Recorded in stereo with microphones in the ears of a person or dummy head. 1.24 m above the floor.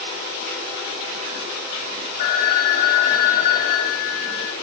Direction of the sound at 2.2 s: 45° left (ahead or behind).